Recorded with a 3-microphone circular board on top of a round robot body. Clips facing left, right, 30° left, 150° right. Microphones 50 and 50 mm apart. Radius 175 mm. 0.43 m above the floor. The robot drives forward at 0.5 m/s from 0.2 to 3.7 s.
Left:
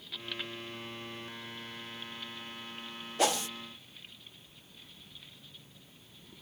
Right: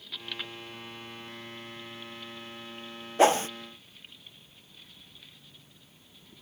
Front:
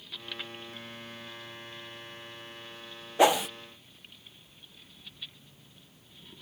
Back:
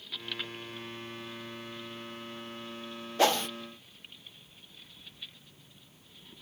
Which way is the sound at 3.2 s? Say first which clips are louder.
Right 8 dB, front 4 dB; 40° right.